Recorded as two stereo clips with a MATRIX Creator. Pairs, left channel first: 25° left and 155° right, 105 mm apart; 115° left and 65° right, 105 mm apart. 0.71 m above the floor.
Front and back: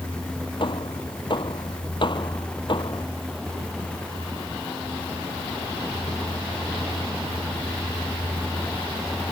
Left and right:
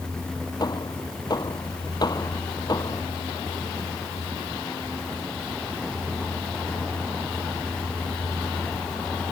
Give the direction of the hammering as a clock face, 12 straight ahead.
10 o'clock.